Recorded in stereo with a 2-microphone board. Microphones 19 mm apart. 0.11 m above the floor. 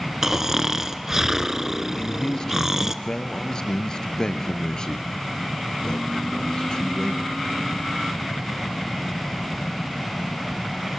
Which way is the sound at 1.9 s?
40° left (ahead or behind).